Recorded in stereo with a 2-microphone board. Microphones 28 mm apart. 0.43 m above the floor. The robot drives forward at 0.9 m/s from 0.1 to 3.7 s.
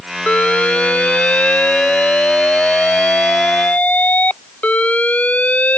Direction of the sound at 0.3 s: 50° left (ahead or behind).